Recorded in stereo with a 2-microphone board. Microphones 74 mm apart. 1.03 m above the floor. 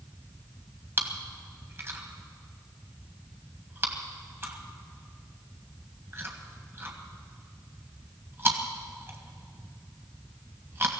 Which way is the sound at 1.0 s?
35° right (ahead or behind).